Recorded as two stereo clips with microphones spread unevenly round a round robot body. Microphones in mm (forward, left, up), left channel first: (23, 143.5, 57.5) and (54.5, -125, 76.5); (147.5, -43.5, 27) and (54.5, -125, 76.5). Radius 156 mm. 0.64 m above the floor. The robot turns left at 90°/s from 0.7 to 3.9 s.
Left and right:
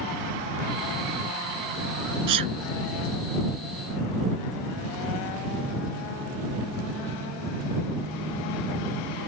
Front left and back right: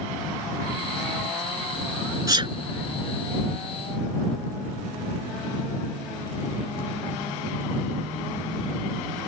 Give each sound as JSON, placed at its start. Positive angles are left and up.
{"t": 2.3, "sound": "a sneeze", "azimuth_deg": -80}